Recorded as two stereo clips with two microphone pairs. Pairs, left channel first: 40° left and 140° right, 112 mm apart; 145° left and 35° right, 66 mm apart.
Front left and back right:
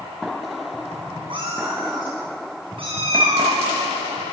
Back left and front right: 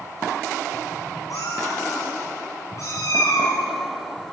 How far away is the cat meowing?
About 5 m.